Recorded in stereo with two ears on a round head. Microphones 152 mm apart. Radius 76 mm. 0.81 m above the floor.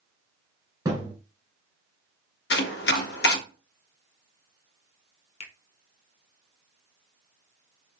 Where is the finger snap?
35° left (ahead or behind), 0.7 m.